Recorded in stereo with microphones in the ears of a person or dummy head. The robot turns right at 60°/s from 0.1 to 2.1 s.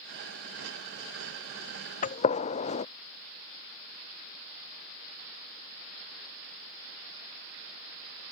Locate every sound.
2.0 s a gunshot: 35° left (ahead or behind)